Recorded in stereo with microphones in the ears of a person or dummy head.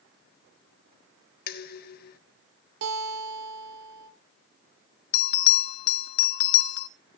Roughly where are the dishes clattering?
Left.